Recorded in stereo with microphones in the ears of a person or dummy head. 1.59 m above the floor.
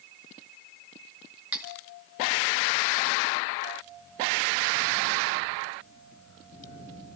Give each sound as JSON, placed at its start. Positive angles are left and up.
{"t": 1.5, "sound": "cutlery clinking", "side_deg": -10, "distance_m": 2.0}